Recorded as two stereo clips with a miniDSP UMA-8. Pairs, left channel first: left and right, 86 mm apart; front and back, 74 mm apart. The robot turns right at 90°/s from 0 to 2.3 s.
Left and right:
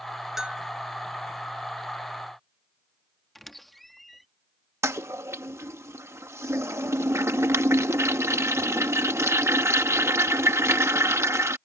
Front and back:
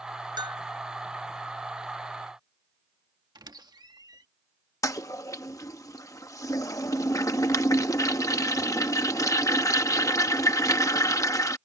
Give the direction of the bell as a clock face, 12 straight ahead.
6 o'clock.